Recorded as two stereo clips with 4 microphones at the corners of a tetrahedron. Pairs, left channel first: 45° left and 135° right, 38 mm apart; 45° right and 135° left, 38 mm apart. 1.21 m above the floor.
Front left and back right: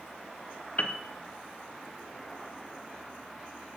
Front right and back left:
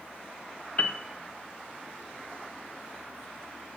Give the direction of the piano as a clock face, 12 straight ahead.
12 o'clock.